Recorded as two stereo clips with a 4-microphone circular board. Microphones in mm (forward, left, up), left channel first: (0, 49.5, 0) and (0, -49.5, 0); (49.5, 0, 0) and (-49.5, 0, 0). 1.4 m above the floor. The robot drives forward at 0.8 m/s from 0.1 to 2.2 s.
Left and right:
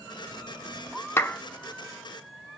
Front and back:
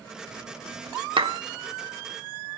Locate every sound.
1.2 s a clap: 150° left, 0.6 m; by 1.4 s 160° left, 0.7 m